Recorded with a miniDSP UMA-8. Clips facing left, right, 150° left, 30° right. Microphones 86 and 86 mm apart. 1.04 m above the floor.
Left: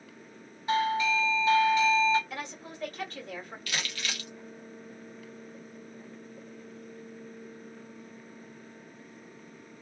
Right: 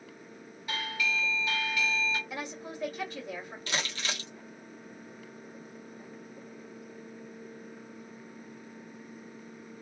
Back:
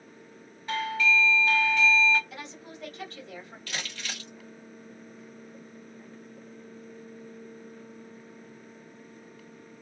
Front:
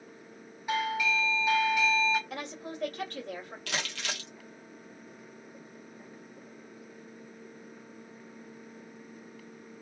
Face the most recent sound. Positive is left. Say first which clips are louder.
# right 2 dB, front 3 dB
turn(degrees=-30)